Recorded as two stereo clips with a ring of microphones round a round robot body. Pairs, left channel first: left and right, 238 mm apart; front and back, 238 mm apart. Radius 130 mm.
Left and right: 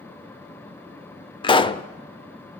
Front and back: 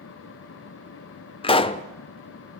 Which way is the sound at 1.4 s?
40° left.